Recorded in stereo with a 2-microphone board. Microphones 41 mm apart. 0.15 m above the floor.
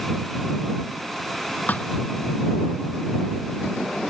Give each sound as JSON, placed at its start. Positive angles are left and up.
{"t": 1.7, "sound": "a thud", "side_deg": 40}